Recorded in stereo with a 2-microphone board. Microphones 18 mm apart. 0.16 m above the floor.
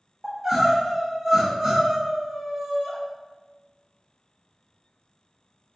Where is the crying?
25° right (ahead or behind), 1.2 m.